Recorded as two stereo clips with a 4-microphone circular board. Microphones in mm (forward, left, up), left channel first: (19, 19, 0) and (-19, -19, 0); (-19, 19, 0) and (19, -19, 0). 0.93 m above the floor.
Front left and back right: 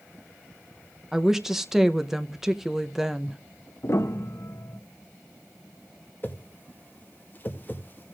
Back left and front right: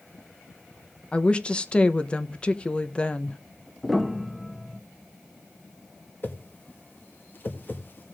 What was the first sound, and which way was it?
A woman speaking, 155° left.